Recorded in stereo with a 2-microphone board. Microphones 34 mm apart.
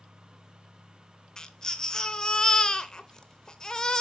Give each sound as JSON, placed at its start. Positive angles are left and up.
{"t": 1.4, "sound": "a baby crying", "side_deg": 25, "distance_m": 0.5}